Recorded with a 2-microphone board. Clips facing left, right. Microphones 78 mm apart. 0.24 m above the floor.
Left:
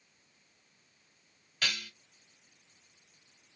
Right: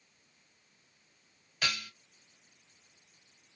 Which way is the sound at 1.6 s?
10° right (ahead or behind).